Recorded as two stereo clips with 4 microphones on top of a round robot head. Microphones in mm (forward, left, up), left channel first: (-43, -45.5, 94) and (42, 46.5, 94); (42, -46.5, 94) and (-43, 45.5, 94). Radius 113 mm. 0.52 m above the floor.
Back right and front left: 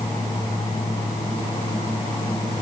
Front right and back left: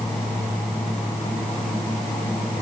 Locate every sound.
Only background noise.